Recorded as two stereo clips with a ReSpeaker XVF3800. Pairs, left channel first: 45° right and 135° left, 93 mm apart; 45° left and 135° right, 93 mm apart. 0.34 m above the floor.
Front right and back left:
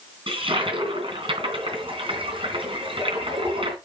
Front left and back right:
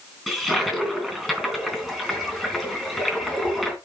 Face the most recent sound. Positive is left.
turn(degrees=135)